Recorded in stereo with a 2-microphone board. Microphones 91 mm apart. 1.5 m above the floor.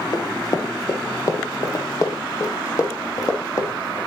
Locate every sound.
0.1 s running footsteps: 40° left (ahead or behind), 2 m; by 4.0 s 35° left (ahead or behind), 4.5 m